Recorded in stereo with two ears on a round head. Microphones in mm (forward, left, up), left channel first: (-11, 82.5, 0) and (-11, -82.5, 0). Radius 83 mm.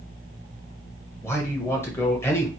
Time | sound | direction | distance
1.2 | a man speaking | 15° left (ahead or behind) | 1.5 m